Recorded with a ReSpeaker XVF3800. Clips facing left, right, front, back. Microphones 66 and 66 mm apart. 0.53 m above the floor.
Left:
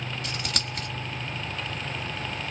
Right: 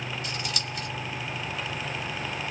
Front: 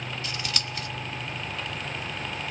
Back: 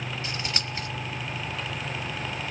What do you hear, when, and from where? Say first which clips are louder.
0.2 s scissors: even, back 1 dB; 120° left, 0.9 m